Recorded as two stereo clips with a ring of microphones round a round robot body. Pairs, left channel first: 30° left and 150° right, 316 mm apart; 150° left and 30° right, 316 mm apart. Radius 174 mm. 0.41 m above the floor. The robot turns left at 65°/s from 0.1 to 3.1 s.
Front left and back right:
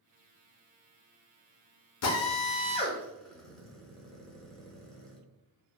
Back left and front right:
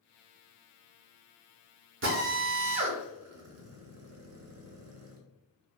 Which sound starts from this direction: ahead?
A drill, at 2.0 s.